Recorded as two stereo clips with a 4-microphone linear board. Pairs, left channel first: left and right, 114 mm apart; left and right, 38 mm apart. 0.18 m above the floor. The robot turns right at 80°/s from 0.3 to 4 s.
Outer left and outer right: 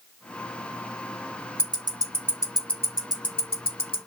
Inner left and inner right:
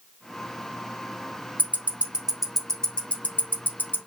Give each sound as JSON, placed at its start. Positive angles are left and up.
{"t": 1.6, "sound": "ticking", "side_deg": -55, "distance_m": 0.8}